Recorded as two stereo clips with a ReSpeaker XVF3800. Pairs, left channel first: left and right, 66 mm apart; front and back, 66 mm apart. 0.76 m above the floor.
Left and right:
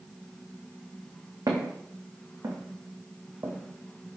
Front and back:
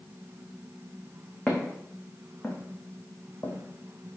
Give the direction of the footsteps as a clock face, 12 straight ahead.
3 o'clock.